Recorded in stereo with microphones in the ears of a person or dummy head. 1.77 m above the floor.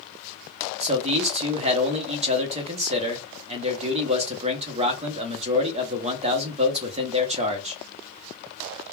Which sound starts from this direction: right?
A man speaking, at 0.8 s.